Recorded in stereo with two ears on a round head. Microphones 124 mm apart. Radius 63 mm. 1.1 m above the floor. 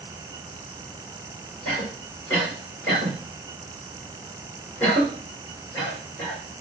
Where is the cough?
15° left (ahead or behind), 3.5 m.